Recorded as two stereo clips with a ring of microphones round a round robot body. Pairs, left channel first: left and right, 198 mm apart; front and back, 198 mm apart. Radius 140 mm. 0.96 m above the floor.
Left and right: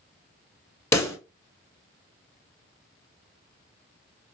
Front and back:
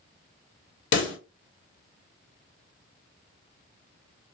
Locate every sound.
0.9 s a pop: 15° left, 1.3 m